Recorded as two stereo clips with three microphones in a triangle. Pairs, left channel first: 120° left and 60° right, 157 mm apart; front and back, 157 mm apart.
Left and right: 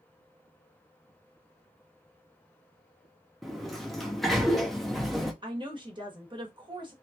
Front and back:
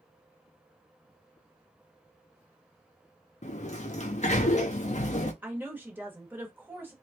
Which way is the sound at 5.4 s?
105° right.